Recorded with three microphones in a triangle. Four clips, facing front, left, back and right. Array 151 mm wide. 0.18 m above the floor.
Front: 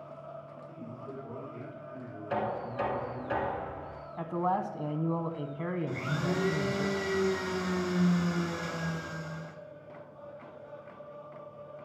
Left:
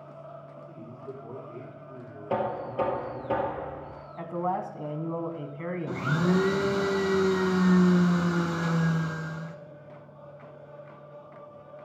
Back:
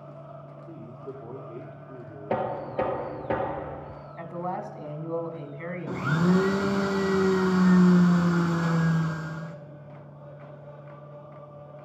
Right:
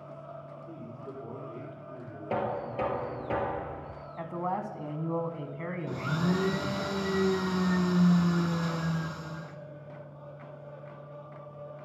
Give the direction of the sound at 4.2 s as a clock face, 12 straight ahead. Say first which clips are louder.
Left 3 dB, front 3 dB; 12 o'clock.